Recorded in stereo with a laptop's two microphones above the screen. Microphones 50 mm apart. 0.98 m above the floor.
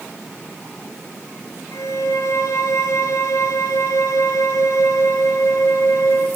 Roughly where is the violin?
Left.